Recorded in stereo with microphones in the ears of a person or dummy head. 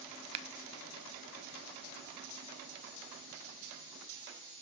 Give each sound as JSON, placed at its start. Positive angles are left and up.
{"t": 0.3, "sound": "scissors", "side_deg": -30, "distance_m": 0.6}